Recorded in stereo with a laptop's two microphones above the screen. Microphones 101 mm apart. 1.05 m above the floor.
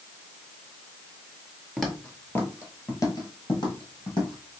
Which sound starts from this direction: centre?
Footsteps, at 1.8 s.